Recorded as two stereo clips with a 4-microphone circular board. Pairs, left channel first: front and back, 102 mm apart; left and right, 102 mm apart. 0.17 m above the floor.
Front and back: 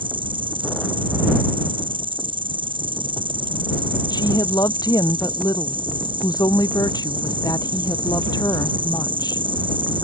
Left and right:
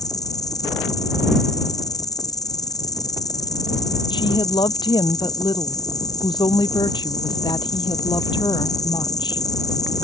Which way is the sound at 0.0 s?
145° left.